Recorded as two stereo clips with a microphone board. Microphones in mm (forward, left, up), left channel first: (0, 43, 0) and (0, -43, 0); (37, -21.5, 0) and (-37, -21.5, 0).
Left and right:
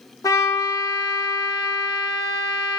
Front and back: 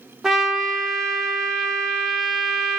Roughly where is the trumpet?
Left.